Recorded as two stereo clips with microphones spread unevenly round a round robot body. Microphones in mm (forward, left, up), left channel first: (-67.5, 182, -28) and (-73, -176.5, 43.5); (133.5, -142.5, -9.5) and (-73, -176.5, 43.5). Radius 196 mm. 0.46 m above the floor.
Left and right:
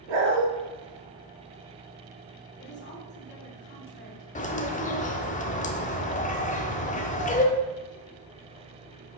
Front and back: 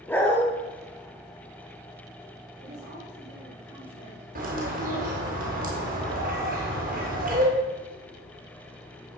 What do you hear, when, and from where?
0.1 s a dog barking: 75° right, 3 m
2.6 s a woman speaking: 145° left, 3 m
4.3 s a bird: 135° left, 1.7 m